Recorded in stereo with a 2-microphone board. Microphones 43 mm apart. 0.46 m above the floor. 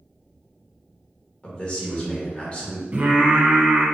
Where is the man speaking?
25° left (ahead or behind), 1.6 m.